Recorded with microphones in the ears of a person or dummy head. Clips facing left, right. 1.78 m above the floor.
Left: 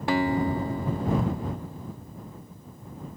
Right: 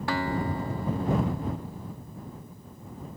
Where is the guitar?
20° left (ahead or behind).